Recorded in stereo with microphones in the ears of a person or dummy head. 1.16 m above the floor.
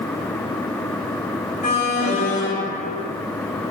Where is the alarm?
40° left (ahead or behind), 2.5 m.